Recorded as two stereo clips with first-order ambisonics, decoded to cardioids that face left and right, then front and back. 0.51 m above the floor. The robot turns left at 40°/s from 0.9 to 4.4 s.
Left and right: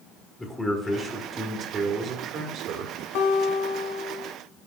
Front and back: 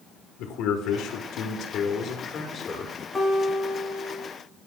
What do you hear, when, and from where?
0.4 s a man speaking: 5° left, 1.2 m; by 2.9 s 75° right, 1.2 m
3.1 s a guitar: 80° left, 1.3 m; by 4.3 s 35° left, 1.3 m